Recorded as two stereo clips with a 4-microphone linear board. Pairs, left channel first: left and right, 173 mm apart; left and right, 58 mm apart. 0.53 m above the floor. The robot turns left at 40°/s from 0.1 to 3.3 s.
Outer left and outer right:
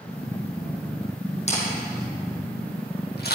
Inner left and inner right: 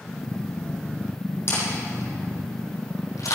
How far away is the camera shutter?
About 5 m.